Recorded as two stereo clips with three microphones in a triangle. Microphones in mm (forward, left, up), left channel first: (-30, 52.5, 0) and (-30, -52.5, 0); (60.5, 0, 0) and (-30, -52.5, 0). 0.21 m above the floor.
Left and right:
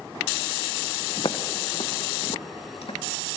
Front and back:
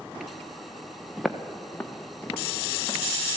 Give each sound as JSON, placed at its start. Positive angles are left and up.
{"t": 1.2, "sound": "footsteps", "azimuth_deg": 120, "distance_m": 1.1}